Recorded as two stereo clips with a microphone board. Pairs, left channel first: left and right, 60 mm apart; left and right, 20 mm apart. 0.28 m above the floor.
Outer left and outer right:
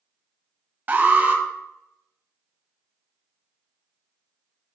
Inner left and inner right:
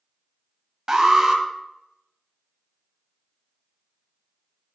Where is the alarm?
35° right (ahead or behind), 1.3 m.